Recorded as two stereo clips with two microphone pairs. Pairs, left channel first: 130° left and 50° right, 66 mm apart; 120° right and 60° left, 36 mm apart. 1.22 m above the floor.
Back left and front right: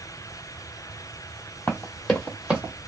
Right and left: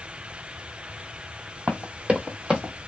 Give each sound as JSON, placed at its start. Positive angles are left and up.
{"t": 1.7, "sound": "running footsteps", "azimuth_deg": 80, "distance_m": 1.6}